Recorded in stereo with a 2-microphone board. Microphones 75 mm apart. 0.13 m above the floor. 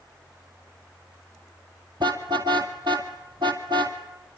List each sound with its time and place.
2.0 s a car horn: 70° right (ahead or behind), 2.5 m